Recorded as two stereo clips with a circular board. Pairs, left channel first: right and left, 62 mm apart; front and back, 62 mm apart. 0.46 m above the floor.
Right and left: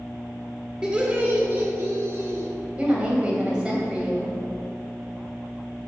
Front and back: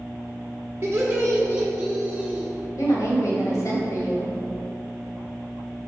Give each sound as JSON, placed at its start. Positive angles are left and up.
{"t": 0.8, "sound": "laughter", "azimuth_deg": 165, "distance_m": 1.1}
{"t": 2.8, "sound": "a woman speaking", "azimuth_deg": 15, "distance_m": 2.0}